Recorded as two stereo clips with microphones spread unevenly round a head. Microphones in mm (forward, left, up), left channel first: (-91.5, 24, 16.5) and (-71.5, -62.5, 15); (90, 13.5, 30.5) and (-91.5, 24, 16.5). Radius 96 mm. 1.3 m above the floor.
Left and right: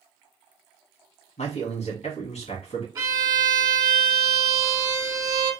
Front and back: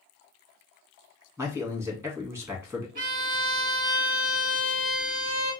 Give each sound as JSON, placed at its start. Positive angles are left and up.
{"t": 1.4, "sound": "a man speaking", "azimuth_deg": 100, "distance_m": 1.7}
{"t": 3.0, "sound": "a violin", "azimuth_deg": -135, "distance_m": 1.3}